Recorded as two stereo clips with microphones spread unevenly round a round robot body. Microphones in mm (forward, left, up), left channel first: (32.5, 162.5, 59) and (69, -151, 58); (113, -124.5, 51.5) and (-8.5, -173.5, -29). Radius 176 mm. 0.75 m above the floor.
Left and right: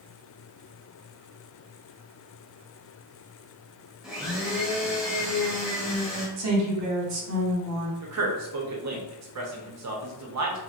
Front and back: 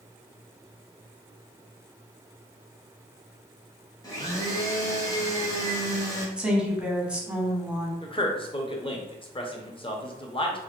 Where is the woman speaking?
105° right, 1.0 m.